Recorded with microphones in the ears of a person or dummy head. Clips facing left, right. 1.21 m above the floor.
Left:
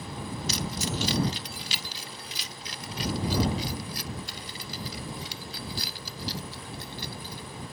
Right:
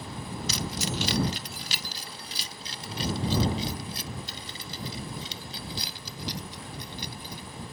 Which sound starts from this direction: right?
Keys jangling, at 0.5 s.